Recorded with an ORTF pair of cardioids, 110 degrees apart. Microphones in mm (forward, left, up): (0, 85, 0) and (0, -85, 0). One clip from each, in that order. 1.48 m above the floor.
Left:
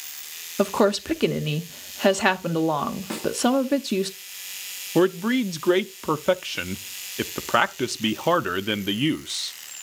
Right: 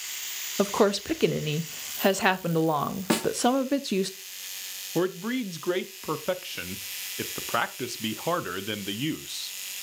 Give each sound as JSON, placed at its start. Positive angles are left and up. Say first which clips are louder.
{"t": 0.6, "sound": "a woman speaking", "louder": "left 3 dB", "azimuth_deg": 10, "distance_m": 0.8}
{"t": 3.1, "sound": "a snare drum", "louder": "right 5 dB", "azimuth_deg": -50, "distance_m": 1.1}
{"t": 5.0, "sound": "a man speaking", "louder": "left 7 dB", "azimuth_deg": 30, "distance_m": 0.6}